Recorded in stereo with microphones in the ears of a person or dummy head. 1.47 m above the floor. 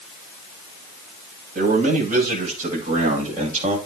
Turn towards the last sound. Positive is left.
turn(degrees=-40)  # may be behind; listen again after turning